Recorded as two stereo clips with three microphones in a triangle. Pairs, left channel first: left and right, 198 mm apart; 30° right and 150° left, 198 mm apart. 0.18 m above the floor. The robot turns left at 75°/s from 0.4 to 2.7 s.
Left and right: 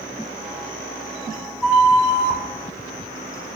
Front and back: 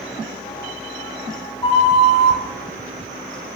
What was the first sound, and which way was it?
A flute, straight ahead.